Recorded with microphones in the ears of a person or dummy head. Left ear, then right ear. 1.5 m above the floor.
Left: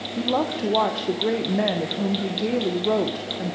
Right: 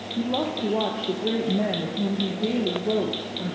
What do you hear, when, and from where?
0.2 s a woman speaking: 65° left (ahead or behind), 0.9 m